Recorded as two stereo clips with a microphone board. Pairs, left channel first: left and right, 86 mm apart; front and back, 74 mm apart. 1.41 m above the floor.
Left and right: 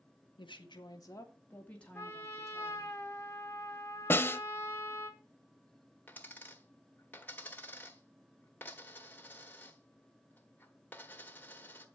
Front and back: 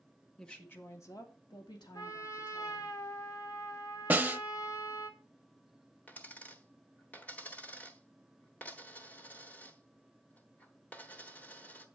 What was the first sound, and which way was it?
A woman speaking, 80° left.